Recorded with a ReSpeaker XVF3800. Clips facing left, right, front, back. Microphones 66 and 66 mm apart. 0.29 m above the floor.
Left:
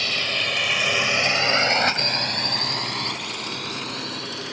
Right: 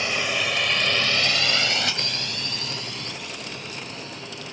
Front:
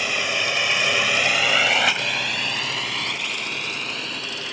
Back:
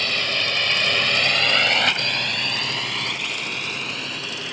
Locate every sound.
0.0 s a drone: 60° right; by 4.5 s 90° left